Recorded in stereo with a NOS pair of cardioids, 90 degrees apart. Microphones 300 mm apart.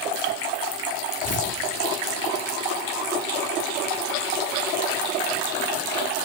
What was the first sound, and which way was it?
Tearing paper, 55° left.